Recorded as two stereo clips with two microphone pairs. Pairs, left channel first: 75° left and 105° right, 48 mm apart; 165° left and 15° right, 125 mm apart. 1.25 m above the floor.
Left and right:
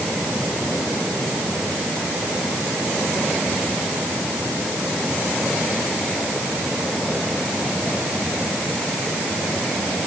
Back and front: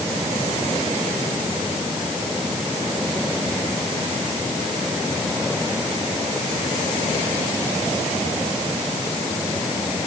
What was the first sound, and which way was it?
Only background noise.